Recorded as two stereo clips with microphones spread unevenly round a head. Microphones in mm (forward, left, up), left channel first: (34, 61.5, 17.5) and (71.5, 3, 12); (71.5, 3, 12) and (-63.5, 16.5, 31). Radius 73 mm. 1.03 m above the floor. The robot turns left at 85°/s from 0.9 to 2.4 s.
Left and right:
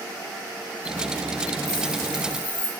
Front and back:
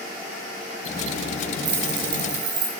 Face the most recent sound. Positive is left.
turn(degrees=175)